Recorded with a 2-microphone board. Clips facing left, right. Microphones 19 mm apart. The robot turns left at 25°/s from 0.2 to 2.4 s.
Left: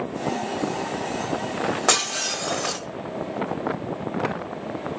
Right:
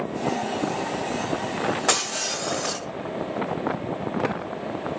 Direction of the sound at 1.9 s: 20° left (ahead or behind).